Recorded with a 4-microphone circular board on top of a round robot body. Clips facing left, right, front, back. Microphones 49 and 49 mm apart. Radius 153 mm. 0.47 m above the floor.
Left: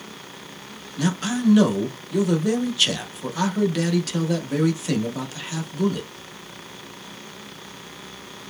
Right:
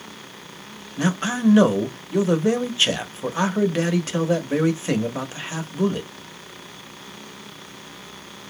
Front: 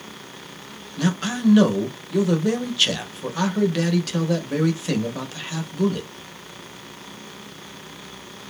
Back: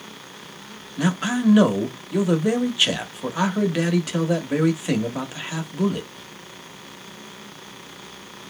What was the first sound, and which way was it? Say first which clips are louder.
A man speaking: right 1 dB, back 1 dB; 120° right.